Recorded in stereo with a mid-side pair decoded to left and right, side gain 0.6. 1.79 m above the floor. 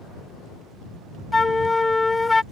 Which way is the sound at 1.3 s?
10° left.